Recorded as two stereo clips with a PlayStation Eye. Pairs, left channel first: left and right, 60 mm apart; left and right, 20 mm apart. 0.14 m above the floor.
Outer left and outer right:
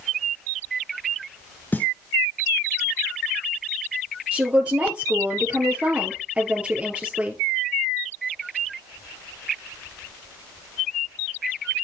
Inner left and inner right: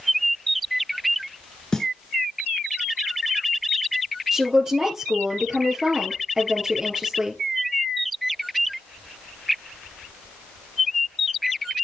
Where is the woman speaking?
25° right (ahead or behind), 2.5 m.